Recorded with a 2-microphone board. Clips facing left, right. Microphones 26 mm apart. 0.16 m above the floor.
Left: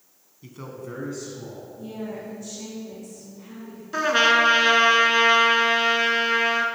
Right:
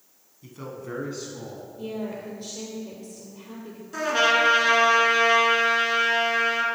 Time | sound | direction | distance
0.4 | a man speaking | 15° left (ahead or behind) | 1.3 m
1.8 | a woman speaking | 50° right (ahead or behind) | 3 m
3.9 | a trumpet | 30° left (ahead or behind) | 1.3 m